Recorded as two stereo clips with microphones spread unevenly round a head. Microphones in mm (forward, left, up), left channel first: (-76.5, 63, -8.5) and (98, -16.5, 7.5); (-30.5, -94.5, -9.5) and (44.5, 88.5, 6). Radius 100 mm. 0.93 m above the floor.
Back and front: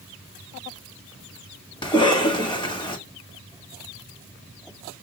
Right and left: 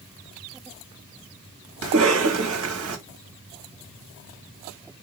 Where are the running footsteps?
I don't hear running footsteps.